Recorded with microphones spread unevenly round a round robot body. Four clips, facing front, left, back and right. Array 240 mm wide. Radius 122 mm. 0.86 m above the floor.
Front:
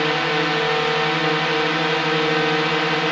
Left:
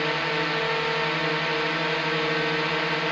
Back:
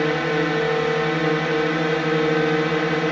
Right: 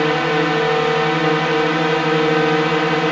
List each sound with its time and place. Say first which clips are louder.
0.0 s a drone: right 10 dB, even; 105° right